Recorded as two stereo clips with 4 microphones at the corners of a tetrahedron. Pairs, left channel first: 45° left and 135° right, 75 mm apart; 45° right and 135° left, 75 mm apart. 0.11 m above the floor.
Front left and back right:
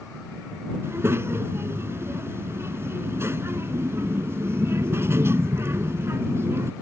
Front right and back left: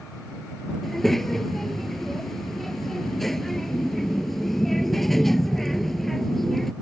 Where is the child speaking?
130° right.